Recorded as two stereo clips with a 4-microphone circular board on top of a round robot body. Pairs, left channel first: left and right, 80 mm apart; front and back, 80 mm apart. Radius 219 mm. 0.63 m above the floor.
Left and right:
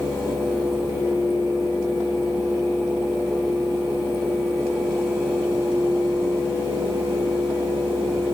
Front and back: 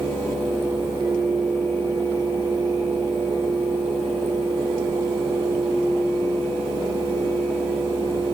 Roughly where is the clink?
No clink in this recording.